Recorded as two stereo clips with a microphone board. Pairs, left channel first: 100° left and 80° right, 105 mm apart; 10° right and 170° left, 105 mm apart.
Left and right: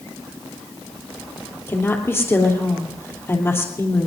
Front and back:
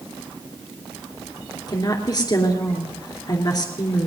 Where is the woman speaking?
35° left, 3 m.